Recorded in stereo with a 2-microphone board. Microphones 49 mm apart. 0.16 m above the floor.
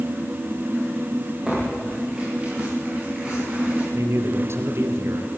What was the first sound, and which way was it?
Tearing paper, 15° right (ahead or behind).